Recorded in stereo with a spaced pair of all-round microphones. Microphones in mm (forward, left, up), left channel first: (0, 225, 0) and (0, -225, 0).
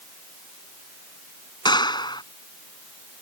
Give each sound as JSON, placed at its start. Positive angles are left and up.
{"t": 1.6, "sound": "a clap", "side_deg": 10}